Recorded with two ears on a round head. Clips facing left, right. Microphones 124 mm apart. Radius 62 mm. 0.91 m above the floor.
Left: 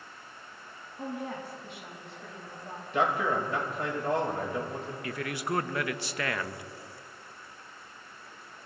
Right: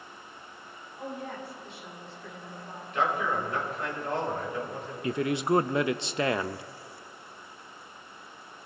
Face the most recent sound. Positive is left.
turn(degrees=-20)  # may be behind; listen again after turning